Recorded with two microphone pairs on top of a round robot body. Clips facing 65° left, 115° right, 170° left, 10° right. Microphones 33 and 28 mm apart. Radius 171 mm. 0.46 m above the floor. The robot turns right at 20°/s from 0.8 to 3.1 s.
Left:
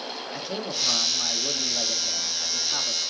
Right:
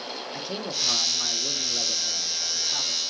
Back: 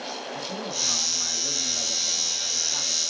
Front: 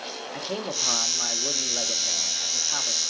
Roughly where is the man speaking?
Ahead.